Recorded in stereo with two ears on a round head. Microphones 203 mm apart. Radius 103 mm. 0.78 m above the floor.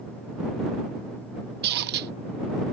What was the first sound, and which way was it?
A squeak, 45° right (ahead or behind).